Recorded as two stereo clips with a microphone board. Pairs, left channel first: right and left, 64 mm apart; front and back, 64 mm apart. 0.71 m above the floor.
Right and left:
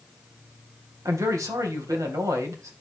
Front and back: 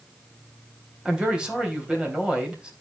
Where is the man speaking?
105° left, 3.5 m.